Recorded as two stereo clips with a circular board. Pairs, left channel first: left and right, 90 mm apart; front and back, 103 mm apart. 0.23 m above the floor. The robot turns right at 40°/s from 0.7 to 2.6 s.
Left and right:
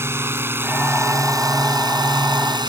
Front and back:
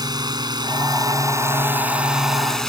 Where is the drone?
145° right; by 2.7 s 85° right.